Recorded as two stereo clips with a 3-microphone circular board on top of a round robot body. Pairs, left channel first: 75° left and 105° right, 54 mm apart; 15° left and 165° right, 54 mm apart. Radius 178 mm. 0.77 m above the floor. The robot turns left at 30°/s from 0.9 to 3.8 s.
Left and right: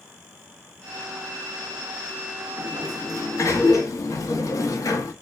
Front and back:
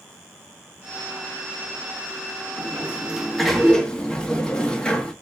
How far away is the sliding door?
About 0.7 m.